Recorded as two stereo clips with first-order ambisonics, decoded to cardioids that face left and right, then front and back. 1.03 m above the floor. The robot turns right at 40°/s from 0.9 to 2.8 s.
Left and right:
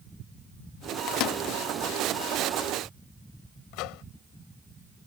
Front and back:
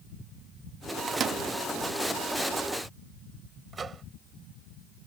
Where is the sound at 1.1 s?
115° left; by 1.4 s 130° left.